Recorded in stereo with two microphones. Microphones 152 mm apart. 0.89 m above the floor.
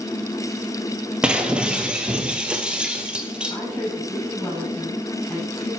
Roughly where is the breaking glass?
Centre.